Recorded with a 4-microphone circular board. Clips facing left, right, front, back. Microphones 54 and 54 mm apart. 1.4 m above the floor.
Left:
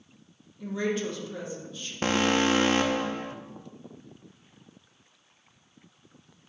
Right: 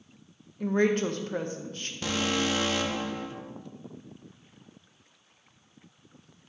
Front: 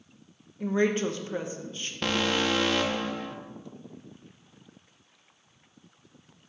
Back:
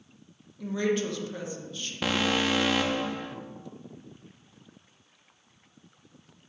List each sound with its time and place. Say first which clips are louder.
0.6 s a woman speaking: right 5 dB, front 2 dB; 55° right, 0.8 m
2.0 s an alarm: left 5 dB, even; 95° left, 0.5 m